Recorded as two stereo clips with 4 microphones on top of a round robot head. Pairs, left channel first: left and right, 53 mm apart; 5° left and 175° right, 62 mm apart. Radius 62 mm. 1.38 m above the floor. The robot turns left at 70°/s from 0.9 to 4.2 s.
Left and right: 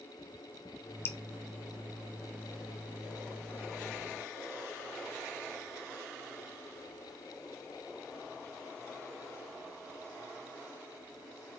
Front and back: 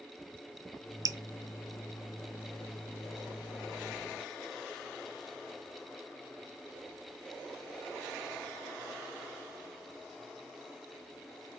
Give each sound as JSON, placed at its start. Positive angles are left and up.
{"t": 1.1, "sound": "dripping", "azimuth_deg": 150, "distance_m": 0.6}